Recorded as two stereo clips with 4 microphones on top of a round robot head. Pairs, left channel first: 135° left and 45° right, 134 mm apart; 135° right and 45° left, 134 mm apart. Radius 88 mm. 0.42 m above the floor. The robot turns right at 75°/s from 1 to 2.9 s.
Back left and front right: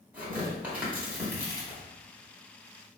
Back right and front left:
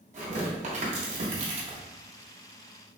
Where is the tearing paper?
35° left, 1.0 m; by 1.8 s 95° left, 1.0 m.